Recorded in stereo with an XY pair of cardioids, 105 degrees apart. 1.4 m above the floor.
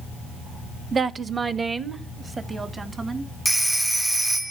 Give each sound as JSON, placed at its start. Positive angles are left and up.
{"t": 0.9, "sound": "a woman speaking", "azimuth_deg": -40, "distance_m": 0.7}
{"t": 3.5, "sound": "a phone ringing", "azimuth_deg": -10, "distance_m": 0.7}